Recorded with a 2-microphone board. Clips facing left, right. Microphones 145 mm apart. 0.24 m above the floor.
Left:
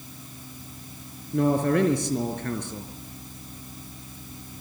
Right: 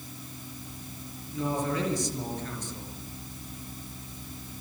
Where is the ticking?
I don't hear ticking.